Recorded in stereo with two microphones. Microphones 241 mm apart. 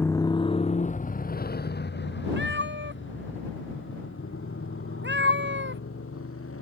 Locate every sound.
0.0 s a motorcycle: 10° left (ahead or behind); by 6.6 s 60° left (ahead or behind)
2.4 s a cat meowing: 50° right (ahead or behind)